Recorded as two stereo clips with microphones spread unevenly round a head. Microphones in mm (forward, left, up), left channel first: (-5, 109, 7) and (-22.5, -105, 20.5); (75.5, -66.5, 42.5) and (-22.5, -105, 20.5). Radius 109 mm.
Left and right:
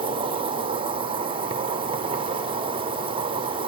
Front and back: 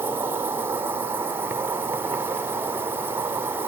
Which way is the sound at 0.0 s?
145° right.